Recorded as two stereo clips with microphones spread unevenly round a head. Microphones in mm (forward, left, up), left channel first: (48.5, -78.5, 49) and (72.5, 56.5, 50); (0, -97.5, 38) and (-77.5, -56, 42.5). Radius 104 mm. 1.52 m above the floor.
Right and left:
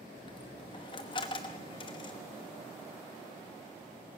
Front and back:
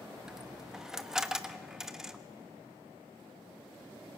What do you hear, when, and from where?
0.2 s a dropped coin: 135° right, 0.9 m